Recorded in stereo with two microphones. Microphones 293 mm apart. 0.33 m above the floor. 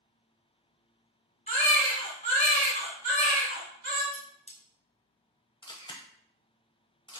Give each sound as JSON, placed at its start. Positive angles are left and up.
{"t": 1.5, "sound": "a baby crying", "side_deg": 25, "distance_m": 1.9}
{"t": 4.1, "sound": "cutlery clinking", "side_deg": 25, "distance_m": 1.0}
{"t": 5.6, "sound": "a camera shutter", "side_deg": 15, "distance_m": 0.6}